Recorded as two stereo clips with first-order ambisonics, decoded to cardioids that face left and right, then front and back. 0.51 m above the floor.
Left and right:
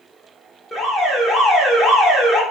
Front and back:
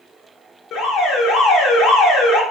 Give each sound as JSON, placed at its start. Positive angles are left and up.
{"t": 0.7, "sound": "an alarm", "azimuth_deg": 5, "distance_m": 0.6}